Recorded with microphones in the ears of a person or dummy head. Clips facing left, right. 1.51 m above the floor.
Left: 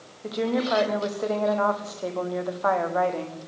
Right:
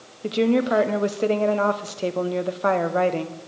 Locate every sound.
0.2 s a woman speaking: 35° right (ahead or behind), 1.0 m